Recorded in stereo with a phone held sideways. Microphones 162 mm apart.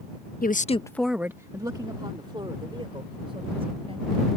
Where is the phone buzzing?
I don't hear a phone buzzing.